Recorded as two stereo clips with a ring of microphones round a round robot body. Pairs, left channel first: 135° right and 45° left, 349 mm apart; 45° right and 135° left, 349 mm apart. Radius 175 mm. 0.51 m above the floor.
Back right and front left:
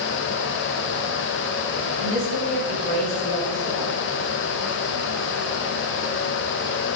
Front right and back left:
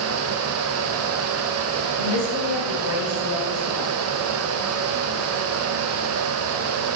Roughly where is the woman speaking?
Ahead.